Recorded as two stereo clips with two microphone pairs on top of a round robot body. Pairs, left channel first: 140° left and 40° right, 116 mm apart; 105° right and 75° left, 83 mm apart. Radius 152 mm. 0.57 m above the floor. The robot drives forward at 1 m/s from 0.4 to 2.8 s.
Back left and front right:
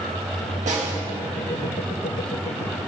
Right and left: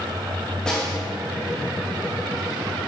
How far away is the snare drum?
About 3.5 m.